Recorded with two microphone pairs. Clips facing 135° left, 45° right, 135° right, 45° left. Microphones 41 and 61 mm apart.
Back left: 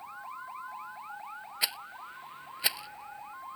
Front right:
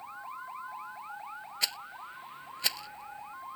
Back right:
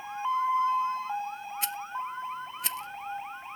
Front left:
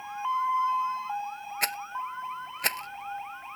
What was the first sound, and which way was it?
A rattle, 65° left.